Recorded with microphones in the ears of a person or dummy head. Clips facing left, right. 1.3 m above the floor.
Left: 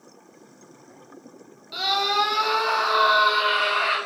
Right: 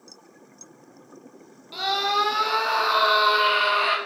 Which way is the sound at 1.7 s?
Centre (ahead or behind).